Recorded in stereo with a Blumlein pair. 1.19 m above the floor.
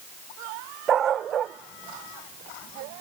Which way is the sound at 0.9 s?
25° right.